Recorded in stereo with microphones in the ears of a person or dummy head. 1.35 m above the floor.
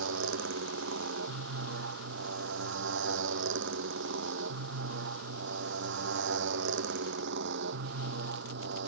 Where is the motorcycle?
80° right; by 8.9 s 70° right (ahead or behind).